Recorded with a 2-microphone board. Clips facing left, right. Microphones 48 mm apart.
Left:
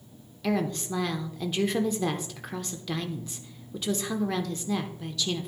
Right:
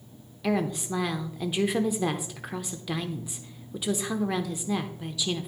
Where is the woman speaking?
10° right (ahead or behind), 0.8 m.